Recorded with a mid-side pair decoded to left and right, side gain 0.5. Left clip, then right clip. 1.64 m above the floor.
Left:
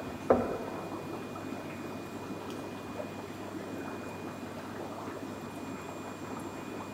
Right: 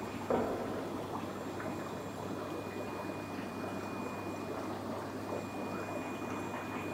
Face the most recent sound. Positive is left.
turn(degrees=60)